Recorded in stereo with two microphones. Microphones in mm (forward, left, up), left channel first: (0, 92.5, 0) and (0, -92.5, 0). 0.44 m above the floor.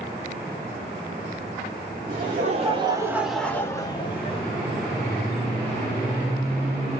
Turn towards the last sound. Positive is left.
turn(degrees=30)  # may be behind; listen again after turning